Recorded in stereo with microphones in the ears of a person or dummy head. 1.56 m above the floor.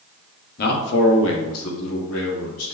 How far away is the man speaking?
About 0.9 m.